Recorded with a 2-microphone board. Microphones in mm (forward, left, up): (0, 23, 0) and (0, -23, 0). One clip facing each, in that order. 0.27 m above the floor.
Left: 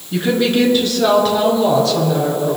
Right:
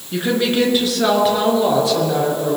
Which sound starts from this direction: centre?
A woman speaking, at 0.1 s.